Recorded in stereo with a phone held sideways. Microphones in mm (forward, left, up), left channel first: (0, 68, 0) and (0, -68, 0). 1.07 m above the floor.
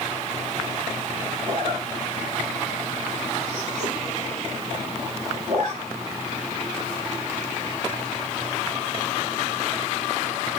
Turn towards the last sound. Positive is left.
turn(degrees=-65)  # may be behind; listen again after turning